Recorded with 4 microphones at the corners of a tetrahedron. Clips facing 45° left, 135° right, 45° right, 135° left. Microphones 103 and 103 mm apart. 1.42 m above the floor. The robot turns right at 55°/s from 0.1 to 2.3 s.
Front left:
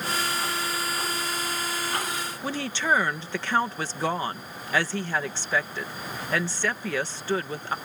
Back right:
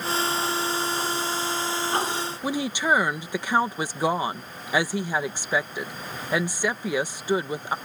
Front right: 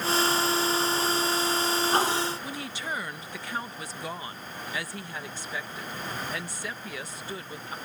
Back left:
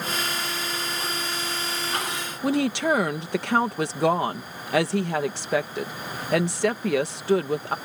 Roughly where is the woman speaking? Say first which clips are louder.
Back right 2 dB, back left 13 dB; behind left.